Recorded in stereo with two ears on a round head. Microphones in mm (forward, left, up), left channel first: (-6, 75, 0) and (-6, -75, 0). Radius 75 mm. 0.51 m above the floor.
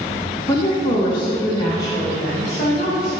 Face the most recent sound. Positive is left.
turn(degrees=25)  # may be behind; listen again after turning